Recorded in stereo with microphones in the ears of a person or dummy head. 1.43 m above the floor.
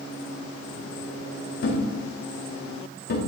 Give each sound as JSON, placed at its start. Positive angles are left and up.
{"t": 1.6, "sound": "a thud", "side_deg": 60, "distance_m": 1.4}